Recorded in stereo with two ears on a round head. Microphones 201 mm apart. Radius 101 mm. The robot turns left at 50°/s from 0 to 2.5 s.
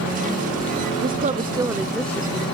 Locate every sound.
1.0 s a woman speaking: 135° right; by 2.5 s 155° left